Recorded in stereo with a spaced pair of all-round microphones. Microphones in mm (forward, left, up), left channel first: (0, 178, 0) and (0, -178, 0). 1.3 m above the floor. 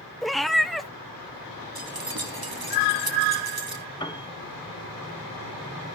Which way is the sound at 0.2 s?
Centre (ahead or behind).